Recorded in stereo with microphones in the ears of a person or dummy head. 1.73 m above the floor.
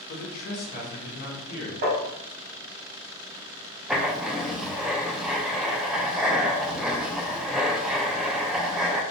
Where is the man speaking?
55° left (ahead or behind), 1.6 m.